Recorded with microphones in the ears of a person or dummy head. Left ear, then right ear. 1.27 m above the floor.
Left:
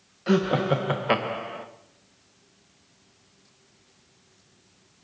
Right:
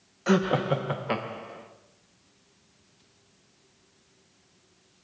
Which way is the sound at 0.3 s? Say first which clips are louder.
Left 1 dB; 30° right (ahead or behind).